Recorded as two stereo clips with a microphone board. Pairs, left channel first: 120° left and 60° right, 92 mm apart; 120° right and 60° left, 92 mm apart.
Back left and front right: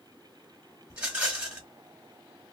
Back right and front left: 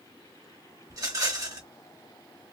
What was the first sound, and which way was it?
A rattle, 15° left.